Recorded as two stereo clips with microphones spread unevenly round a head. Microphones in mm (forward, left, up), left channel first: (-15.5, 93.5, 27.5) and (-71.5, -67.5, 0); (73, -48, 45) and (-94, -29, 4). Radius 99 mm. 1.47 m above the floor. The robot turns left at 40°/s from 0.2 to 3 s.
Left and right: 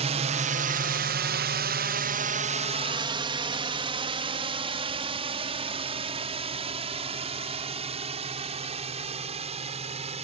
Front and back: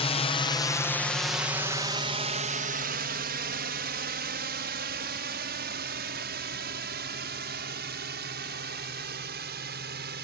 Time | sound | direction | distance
0.0 | a drone | 65° right | ?